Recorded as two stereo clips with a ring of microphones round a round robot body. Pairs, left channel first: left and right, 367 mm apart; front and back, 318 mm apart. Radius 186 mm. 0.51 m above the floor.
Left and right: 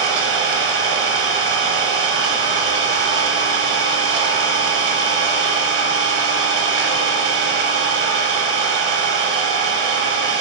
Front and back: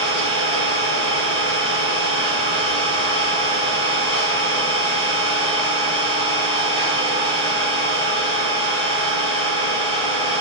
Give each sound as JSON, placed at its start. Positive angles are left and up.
{"t": 0.0, "sound": "an engine running", "azimuth_deg": -55, "distance_m": 0.7}